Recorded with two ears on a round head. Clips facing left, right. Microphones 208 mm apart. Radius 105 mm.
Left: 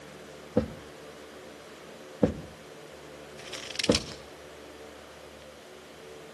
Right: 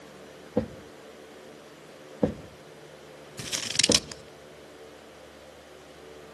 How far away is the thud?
About 0.9 m.